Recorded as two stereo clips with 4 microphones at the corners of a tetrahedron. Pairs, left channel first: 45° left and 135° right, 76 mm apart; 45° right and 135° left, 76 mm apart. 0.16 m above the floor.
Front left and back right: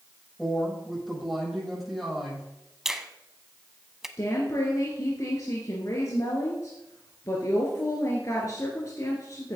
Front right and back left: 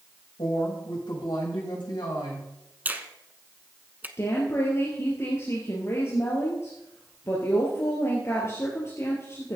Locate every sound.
0.4 s a woman speaking: 45° right, 6.5 m
2.9 s a finger snap: 145° left, 0.8 m
4.2 s a woman speaking: 5° left, 2.5 m